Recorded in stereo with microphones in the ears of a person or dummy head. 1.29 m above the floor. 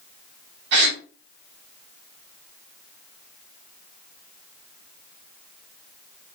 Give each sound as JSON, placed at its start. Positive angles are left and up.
{"t": 0.7, "sound": "a gasp", "side_deg": -65, "distance_m": 0.9}